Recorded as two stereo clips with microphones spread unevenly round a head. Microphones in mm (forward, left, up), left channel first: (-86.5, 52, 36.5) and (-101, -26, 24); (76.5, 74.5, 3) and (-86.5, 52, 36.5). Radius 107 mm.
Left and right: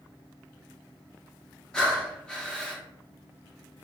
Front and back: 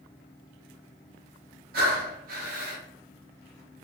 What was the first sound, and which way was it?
Breathing, 160° left.